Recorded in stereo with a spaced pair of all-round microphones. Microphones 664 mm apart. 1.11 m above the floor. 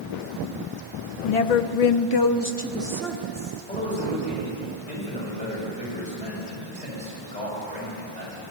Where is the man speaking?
10° left (ahead or behind), 6.5 m.